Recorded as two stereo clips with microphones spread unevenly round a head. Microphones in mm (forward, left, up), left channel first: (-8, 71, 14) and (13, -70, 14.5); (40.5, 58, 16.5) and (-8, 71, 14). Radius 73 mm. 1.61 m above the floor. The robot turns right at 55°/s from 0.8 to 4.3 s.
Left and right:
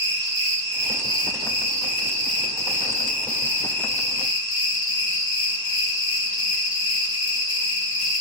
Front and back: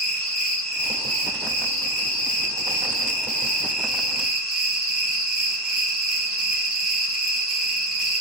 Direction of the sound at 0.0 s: 95° right.